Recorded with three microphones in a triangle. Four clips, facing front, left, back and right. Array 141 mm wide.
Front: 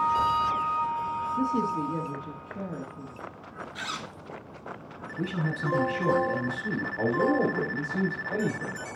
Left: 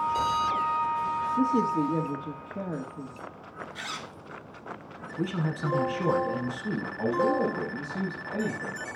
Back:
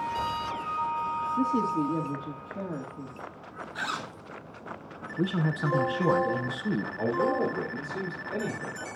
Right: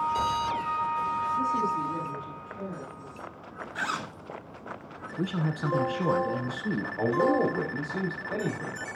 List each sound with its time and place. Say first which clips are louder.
1.4 s a man speaking: left 6 dB, back 1 dB; 115° left, 2.5 m
3.8 s a zipper: right 10 dB, back 4 dB; 120° right, 0.5 m
5.2 s a man speaking: even, back 3 dB; 165° right, 1.1 m
7.0 s a man speaking: right 1 dB, front 3 dB; 50° right, 4.5 m